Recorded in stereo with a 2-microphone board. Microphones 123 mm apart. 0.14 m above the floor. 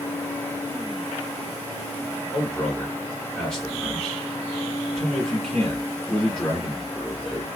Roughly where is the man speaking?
Centre.